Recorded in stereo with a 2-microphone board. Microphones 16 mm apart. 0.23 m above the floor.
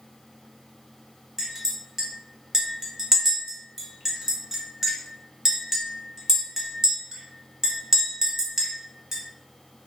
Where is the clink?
30° right (ahead or behind), 0.8 m.